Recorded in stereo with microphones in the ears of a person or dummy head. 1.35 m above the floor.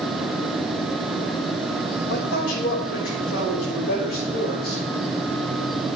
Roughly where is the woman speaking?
Left.